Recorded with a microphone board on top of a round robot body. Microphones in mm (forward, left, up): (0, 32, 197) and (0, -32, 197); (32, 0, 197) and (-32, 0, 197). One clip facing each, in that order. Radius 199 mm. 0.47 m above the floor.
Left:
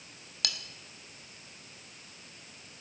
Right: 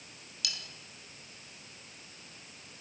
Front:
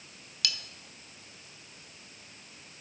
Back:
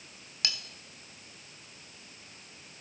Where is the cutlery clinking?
120° left, 1.4 m.